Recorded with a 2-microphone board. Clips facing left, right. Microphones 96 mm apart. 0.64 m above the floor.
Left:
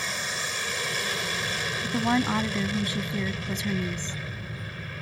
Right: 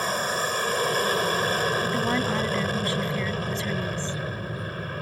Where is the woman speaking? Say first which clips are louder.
Even; 15° left (ahead or behind).